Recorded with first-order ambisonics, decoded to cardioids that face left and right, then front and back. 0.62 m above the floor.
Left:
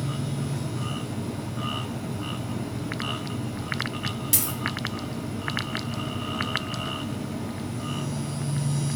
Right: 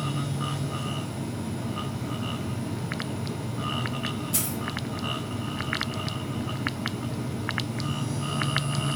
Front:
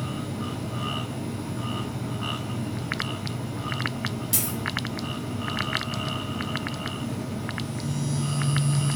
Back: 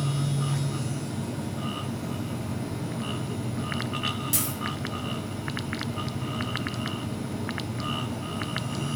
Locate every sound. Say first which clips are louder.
4.3 s a dropped coin: left 3 dB, front 1 dB; 85° left, 1.3 m